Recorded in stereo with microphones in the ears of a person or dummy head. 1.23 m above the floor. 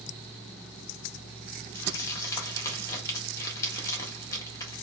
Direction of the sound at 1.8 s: 20° left (ahead or behind).